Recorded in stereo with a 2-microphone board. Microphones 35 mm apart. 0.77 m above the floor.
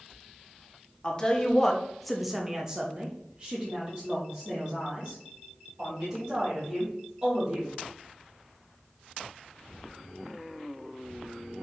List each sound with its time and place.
1.0 s a woman speaking: 25° left (ahead or behind), 0.8 m; by 7.7 s 35° right (ahead or behind), 3 m